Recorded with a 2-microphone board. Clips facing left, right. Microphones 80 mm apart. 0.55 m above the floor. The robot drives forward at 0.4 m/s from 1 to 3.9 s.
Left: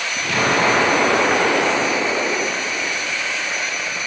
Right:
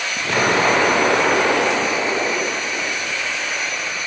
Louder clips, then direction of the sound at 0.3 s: Right 1 dB; 30° right (ahead or behind).